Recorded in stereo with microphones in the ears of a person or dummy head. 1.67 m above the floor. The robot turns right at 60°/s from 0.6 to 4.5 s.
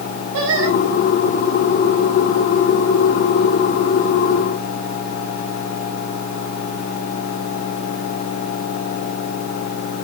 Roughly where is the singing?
Right.